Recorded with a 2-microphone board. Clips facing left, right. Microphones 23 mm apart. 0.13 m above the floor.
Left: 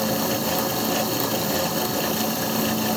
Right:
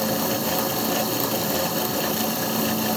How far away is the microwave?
I don't hear a microwave.